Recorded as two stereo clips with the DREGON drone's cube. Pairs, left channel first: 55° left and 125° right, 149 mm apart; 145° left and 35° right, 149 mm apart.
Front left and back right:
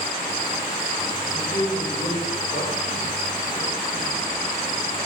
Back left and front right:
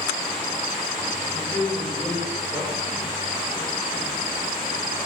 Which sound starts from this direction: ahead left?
A man speaking, at 1.3 s.